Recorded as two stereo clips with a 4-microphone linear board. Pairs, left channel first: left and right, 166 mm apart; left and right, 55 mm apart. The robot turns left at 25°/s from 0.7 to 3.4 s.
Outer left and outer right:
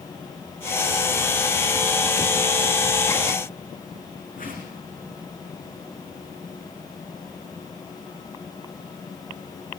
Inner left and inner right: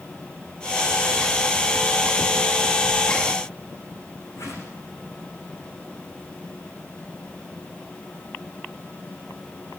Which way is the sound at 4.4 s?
55° left (ahead or behind).